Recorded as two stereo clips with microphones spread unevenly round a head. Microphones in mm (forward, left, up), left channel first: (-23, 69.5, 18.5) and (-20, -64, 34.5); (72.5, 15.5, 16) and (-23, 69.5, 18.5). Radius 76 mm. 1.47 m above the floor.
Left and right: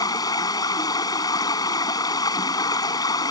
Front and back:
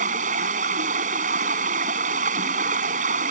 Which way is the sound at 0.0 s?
155° left.